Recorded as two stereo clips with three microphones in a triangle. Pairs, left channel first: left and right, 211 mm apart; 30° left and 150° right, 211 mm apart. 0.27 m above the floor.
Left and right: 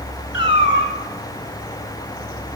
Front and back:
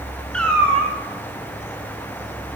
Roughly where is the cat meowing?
Behind left.